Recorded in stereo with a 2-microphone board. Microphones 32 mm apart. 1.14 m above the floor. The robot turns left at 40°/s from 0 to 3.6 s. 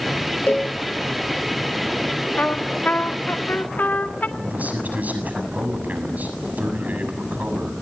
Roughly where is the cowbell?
Left.